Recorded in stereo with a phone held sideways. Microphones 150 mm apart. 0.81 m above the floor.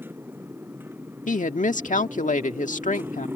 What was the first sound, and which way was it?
A motorcycle, 15° right (ahead or behind).